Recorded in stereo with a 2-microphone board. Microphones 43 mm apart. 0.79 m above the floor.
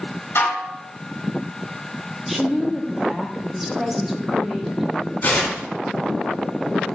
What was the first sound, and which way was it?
Dishes clattering, 65° left (ahead or behind).